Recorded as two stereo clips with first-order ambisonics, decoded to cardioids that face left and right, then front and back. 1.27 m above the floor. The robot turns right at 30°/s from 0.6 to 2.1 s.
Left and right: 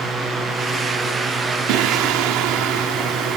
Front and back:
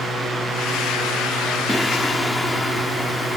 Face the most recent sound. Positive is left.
turn(degrees=-75)